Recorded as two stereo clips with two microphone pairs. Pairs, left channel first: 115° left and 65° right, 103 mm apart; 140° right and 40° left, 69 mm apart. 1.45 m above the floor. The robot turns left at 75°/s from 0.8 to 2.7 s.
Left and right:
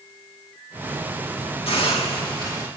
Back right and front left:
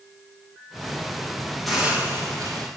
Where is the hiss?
130° left, 1.9 m; by 2.7 s 55° left, 1.9 m.